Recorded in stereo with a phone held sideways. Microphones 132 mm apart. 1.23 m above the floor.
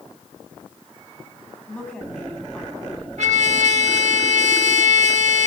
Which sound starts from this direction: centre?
A woman speaking, at 1.7 s.